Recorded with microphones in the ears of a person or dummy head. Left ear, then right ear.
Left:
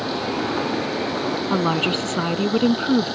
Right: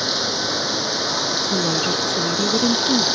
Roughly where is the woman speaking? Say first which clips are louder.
Right 1 dB; left.